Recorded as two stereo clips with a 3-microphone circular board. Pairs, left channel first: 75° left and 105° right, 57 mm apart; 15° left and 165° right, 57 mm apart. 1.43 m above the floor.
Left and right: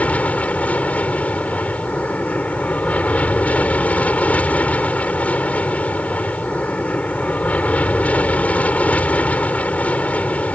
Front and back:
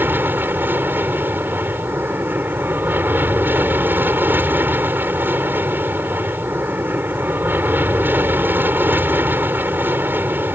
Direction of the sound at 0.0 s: 140° left.